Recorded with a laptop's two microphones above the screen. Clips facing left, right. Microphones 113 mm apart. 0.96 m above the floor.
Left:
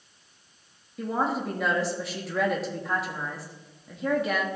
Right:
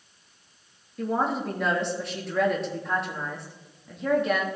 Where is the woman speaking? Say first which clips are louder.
Right 1 dB; centre (ahead or behind), 1.4 m.